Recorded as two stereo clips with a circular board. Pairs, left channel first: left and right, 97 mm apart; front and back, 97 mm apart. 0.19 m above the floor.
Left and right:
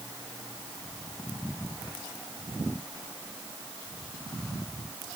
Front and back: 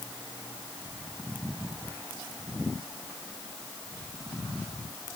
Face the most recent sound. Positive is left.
No sound to turn to.